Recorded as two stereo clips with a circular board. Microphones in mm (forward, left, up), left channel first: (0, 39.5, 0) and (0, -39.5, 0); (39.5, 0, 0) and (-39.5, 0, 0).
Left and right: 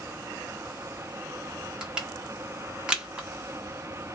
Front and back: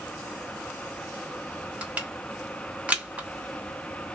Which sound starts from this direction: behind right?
Crushing, at 1.8 s.